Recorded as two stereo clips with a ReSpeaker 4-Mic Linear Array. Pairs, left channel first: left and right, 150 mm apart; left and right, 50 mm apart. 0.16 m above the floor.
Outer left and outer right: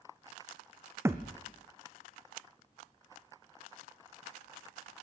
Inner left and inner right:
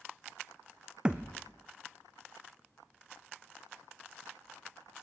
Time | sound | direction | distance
1.1 | a thud | 15° right (ahead or behind) | 1.3 m